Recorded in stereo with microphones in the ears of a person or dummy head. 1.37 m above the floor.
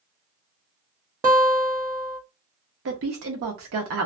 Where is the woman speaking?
70° right (ahead or behind), 0.9 m.